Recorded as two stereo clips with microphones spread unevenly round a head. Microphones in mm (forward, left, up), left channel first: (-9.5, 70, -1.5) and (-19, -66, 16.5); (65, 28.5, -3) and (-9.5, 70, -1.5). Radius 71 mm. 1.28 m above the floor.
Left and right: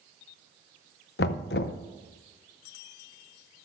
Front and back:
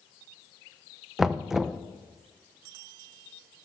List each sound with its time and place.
1.2 s knocking: 65° left, 0.6 m